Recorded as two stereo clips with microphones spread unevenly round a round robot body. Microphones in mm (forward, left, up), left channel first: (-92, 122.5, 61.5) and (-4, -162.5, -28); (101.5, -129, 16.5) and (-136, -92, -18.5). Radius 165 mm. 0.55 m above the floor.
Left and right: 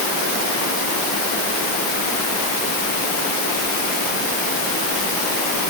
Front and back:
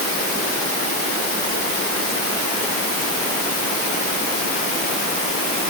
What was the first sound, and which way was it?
Only background noise.